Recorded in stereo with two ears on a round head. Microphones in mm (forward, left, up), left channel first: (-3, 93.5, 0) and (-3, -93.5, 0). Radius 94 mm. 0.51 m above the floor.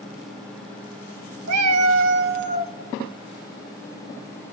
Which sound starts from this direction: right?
A cat meowing, at 1.5 s.